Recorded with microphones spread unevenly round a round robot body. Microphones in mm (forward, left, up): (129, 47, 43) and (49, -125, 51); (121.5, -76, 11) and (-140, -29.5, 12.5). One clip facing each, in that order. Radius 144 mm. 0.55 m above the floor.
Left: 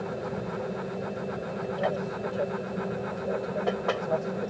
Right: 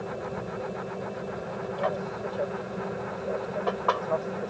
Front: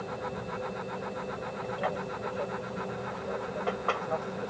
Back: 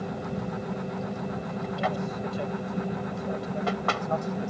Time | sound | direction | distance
0.0 | an aircraft | 135° left | ?